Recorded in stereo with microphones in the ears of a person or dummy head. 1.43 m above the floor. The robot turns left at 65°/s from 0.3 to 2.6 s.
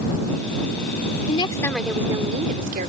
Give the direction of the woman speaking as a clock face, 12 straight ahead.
11 o'clock.